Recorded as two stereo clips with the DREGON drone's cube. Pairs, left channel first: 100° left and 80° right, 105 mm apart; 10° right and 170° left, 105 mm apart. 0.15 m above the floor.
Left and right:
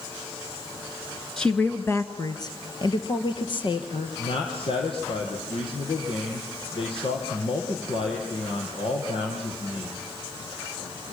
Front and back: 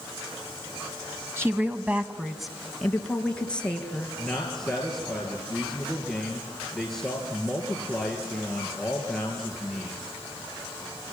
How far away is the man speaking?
About 4 m.